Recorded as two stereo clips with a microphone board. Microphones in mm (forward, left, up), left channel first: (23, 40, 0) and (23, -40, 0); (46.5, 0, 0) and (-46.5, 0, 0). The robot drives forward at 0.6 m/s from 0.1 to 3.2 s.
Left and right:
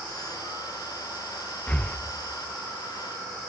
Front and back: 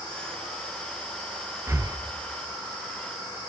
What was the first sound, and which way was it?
Breathing, 145° left.